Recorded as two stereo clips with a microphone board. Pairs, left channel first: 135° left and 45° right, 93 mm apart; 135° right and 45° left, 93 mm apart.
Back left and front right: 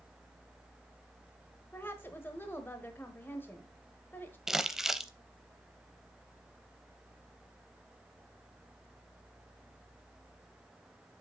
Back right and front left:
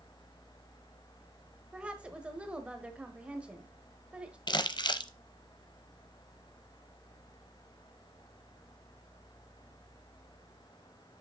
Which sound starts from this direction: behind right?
Crumpling, at 4.5 s.